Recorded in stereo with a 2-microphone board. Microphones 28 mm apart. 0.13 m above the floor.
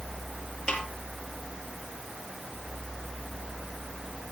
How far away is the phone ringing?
I don't hear a phone ringing.